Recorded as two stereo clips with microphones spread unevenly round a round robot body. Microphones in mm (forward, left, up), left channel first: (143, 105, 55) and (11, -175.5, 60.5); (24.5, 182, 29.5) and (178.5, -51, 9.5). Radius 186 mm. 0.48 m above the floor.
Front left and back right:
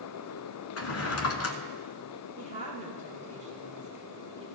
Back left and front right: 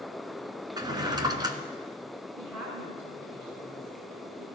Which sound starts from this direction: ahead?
A drawer, at 0.8 s.